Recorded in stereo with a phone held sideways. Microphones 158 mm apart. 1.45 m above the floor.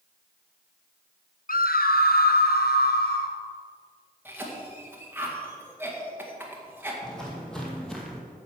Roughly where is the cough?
Centre.